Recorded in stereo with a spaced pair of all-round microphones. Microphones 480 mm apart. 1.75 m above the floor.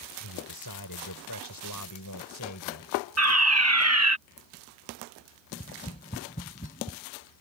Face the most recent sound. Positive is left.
turn(degrees=15)  # may be behind; listen again after turning